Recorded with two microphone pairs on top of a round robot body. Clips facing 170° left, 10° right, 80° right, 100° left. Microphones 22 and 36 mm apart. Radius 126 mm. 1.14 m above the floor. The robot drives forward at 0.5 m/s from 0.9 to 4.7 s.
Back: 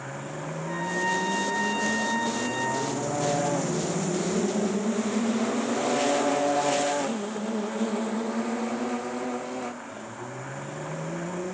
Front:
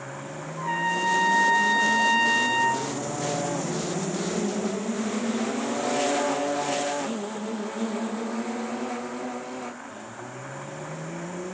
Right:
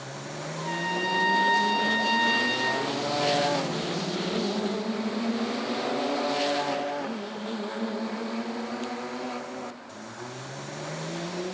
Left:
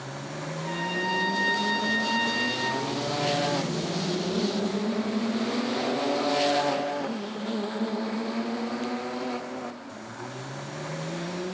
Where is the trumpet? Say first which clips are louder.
Front 4 dB, right 1 dB; 5° right, 8 m.